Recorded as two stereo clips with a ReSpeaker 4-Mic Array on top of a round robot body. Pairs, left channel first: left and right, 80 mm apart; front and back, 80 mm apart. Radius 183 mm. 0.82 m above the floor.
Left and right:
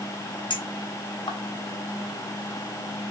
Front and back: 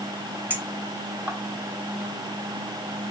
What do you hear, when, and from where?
0.5 s a clink: 110° left, 2.5 m